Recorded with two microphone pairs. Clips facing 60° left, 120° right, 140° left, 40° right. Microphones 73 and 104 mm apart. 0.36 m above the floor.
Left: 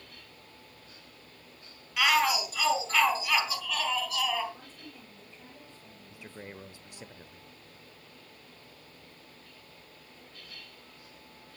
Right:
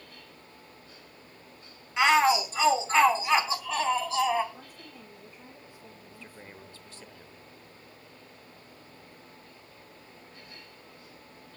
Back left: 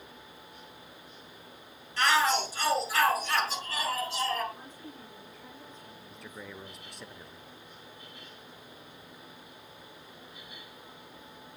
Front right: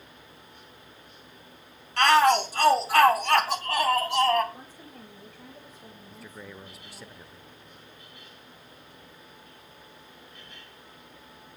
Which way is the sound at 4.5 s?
45° right.